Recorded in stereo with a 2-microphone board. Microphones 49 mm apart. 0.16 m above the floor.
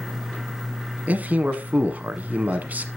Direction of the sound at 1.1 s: 35° right (ahead or behind).